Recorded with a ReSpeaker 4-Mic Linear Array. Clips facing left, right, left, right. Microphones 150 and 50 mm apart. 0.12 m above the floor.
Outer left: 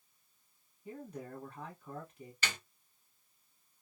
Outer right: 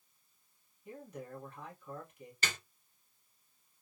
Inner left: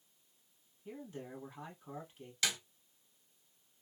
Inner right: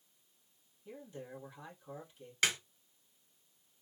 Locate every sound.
0.8 s a man speaking: 30° left (ahead or behind), 2.5 m
2.4 s a snare drum: 40° right (ahead or behind), 1.6 m